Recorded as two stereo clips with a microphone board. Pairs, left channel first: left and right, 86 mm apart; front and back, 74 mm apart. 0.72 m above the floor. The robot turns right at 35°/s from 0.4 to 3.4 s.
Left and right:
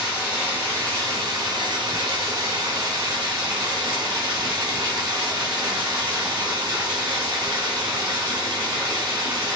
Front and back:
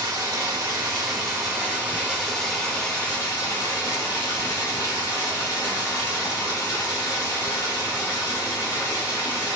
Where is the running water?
160° right, 2 m; by 9.6 s 55° right, 2 m.